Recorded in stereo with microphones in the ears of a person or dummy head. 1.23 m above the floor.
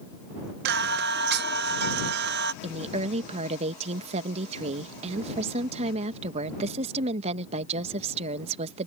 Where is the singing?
60° right (ahead or behind).